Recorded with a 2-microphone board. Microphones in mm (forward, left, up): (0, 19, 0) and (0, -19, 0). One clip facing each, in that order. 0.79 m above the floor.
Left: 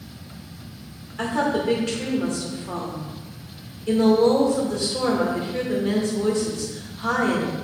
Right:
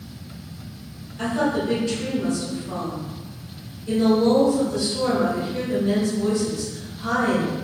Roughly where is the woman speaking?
Left.